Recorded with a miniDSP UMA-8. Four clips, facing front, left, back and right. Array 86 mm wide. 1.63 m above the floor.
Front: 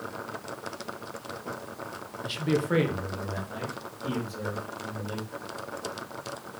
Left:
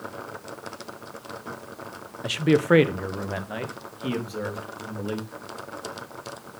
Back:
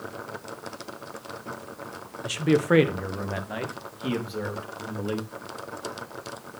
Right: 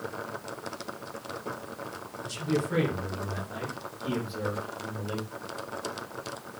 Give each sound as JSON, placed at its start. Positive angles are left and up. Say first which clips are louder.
{"t": 2.2, "sound": "a man speaking", "louder": "left 10 dB, back 5 dB", "azimuth_deg": 105, "distance_m": 0.9}